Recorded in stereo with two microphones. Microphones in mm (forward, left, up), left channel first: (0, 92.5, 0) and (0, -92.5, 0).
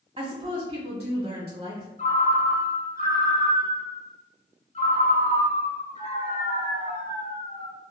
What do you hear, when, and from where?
0.2 s a woman speaking: 35° right (ahead or behind), 1.4 m
2.0 s a ringtone: 35° left (ahead or behind), 1.5 m